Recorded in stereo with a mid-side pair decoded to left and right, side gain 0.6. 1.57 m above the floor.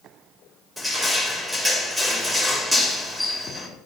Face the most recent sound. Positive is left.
turn(degrees=0)